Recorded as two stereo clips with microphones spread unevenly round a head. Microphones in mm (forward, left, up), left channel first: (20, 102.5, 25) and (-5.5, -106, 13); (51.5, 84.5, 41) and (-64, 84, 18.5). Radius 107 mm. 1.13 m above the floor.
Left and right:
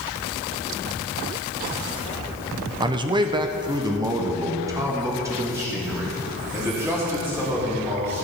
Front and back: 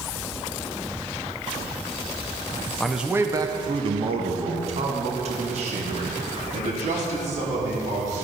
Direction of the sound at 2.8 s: 105° right.